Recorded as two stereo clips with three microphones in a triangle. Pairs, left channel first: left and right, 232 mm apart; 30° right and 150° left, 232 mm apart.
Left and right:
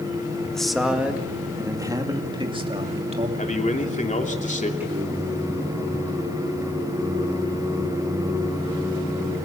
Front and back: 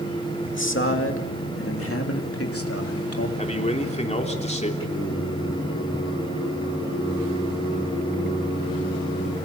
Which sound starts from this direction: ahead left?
A man speaking, at 3.4 s.